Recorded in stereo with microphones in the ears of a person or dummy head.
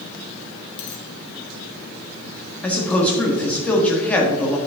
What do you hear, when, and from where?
0.8 s a dropped coin: 40° left (ahead or behind), 1.7 m
2.6 s a man speaking: 5° left (ahead or behind), 1.8 m